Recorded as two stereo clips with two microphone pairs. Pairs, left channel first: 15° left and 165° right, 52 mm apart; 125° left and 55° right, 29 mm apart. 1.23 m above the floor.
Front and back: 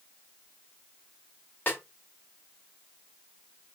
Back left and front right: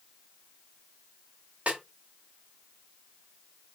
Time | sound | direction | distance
1.7 | a snare drum | 35° right | 1.4 m